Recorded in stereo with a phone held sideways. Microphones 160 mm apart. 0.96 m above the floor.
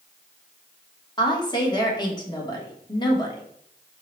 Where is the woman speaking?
25° left (ahead or behind), 1.1 m.